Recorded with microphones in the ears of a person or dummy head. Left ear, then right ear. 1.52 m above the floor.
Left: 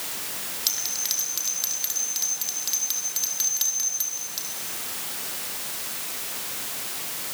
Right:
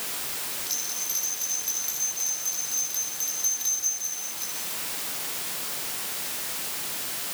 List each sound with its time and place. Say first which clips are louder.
0.7 s a bell: left 5 dB; 45° left (ahead or behind), 4.5 m